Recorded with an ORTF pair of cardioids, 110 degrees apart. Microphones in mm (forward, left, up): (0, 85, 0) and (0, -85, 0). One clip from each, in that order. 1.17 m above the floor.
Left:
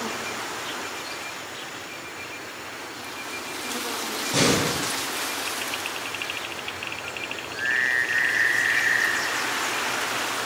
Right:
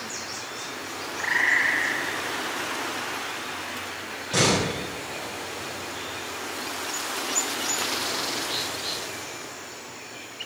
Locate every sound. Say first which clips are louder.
4.3 s a door slam: even; 5° right, 6 m